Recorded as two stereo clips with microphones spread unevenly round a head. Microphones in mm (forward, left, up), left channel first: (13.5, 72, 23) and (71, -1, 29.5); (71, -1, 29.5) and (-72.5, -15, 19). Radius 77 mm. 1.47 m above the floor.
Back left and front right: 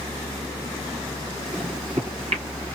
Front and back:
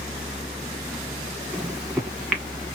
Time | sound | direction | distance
1.5 | a microwave | 80° right | 1.0 m